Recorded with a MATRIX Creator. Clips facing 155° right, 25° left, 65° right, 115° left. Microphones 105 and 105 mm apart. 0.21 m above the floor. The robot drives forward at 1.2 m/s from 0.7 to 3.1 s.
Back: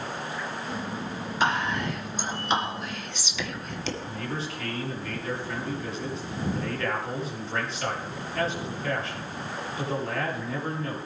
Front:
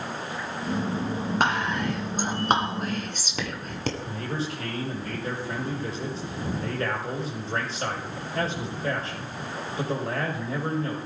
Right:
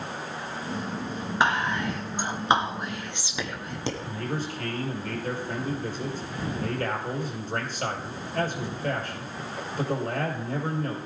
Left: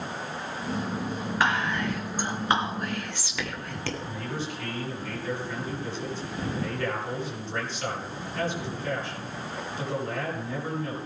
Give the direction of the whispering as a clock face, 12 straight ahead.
12 o'clock.